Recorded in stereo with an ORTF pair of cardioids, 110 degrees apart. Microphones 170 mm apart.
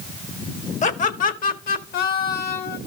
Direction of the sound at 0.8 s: 40° left.